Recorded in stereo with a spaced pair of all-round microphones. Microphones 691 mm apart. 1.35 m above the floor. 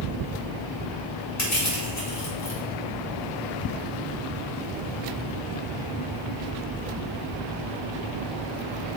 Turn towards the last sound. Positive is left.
turn(degrees=25)  # may be behind; listen again after turning